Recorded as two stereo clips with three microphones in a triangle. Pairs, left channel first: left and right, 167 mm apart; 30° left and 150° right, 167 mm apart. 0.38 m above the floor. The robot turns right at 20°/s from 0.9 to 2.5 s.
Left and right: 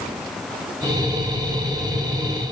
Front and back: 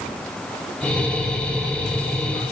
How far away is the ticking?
I don't hear ticking.